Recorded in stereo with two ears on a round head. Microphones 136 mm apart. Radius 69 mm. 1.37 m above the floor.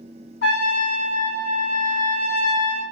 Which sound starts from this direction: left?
A trumpet, at 0.4 s.